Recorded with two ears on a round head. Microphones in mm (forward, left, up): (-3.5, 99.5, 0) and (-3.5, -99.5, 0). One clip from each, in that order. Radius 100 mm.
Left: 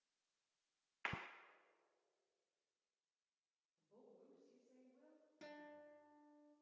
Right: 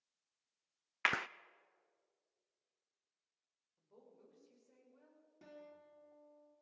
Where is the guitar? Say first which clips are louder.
Right 1 dB; 55° left (ahead or behind), 2.5 m.